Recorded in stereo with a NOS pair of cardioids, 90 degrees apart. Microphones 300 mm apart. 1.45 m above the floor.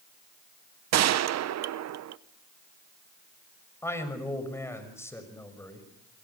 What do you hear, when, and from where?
0.9 s a gunshot: 60° right, 0.8 m
3.8 s a man speaking: 10° left, 6 m